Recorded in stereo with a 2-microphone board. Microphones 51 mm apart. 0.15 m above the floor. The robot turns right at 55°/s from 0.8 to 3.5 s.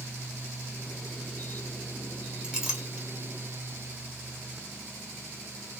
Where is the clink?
15° right (ahead or behind), 1.8 m; by 3.1 s 15° left (ahead or behind), 1.8 m.